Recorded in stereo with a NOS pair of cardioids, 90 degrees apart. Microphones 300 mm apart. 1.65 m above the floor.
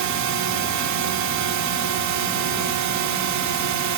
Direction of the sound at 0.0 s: 65° right.